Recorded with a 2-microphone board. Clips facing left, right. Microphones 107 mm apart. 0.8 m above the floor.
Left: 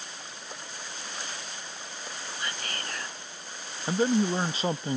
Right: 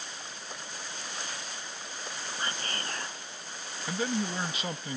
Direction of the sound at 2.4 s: 35° right (ahead or behind).